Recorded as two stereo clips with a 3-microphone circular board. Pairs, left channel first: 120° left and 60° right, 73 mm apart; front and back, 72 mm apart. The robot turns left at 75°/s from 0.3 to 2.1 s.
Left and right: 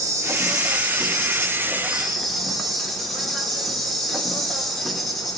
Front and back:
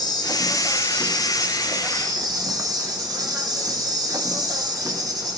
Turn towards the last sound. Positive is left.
turn(degrees=-150)